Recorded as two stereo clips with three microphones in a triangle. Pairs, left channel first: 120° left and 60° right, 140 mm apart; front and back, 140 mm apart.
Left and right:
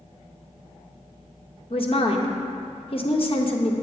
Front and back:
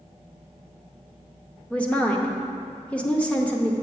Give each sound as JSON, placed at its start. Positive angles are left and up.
{"t": 1.7, "sound": "a woman speaking", "azimuth_deg": 80, "distance_m": 0.7}